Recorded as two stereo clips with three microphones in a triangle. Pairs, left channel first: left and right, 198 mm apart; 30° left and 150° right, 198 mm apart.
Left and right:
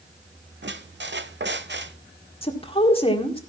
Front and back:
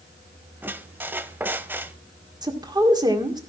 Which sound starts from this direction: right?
A squeak, at 0.6 s.